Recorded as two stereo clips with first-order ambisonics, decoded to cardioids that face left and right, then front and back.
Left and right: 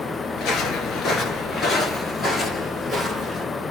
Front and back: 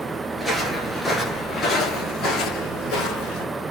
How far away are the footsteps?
About 1.4 m.